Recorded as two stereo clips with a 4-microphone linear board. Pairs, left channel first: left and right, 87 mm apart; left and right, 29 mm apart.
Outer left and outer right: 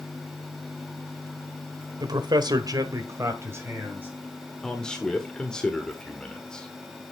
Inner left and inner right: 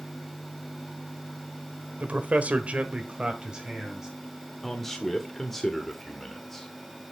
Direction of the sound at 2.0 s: 50° right (ahead or behind).